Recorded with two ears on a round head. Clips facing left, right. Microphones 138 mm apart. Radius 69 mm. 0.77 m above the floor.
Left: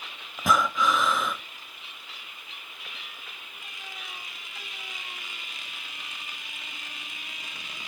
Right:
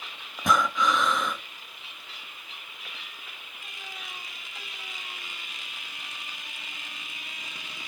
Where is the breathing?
5° left (ahead or behind), 0.6 m.